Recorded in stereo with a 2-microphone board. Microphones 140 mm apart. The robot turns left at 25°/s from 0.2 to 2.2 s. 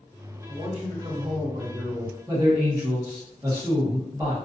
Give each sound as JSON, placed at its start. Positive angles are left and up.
{"t": 0.5, "sound": "a man speaking", "azimuth_deg": -45, "distance_m": 1.5}
{"t": 2.3, "sound": "a man speaking", "side_deg": -25, "distance_m": 0.8}